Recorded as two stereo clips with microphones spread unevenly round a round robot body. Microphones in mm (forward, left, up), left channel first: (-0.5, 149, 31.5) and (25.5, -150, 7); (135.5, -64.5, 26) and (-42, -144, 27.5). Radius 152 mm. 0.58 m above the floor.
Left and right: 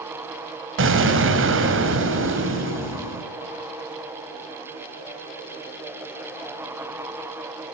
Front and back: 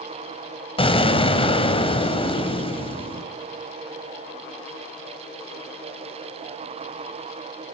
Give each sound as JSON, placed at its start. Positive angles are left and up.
{"t": 0.8, "sound": "an explosion", "azimuth_deg": -35, "distance_m": 3.5}